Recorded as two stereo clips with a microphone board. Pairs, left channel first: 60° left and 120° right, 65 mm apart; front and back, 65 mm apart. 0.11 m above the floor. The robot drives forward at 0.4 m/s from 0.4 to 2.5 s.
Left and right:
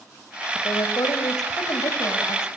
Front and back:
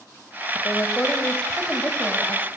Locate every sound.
0.6 s a woman speaking: 60° left, 5.5 m; by 2.5 s 70° left, 5 m